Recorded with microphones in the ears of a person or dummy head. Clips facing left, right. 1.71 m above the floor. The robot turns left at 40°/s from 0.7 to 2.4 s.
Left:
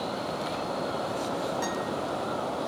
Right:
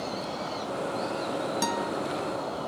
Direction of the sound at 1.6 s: 55° right (ahead or behind).